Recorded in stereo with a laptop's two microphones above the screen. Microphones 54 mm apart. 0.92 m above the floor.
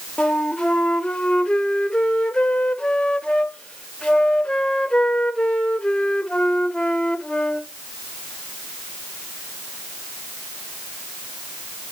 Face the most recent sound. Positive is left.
turn(degrees=15)  # may be behind; listen again after turning